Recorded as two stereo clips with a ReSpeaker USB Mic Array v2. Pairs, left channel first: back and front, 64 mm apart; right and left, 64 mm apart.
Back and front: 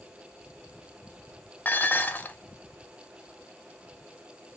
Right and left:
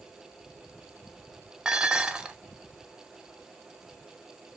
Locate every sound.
1.6 s dishes clattering: 155° left, 0.5 m